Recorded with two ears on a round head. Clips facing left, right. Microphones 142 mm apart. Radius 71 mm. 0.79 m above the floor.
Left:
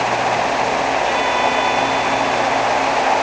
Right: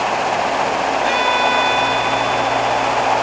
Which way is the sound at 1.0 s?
55° right (ahead or behind).